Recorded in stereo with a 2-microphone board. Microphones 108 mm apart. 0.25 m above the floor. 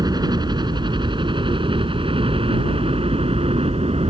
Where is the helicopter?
40° right (ahead or behind); by 4.1 s 65° right (ahead or behind).